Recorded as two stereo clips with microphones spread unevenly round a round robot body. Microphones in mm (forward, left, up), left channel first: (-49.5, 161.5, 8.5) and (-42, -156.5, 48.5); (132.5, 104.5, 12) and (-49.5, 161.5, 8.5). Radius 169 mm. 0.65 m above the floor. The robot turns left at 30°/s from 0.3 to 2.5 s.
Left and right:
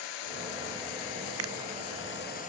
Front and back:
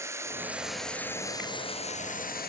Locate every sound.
0.0 s running water: 85° left, 2 m; by 2.5 s 20° left, 2 m
1.4 s a finger snap: 115° right, 0.7 m; by 1.5 s 120° right, 0.7 m